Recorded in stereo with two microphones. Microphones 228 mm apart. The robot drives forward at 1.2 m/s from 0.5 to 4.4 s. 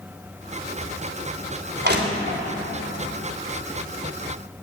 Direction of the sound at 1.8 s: 50° right (ahead or behind).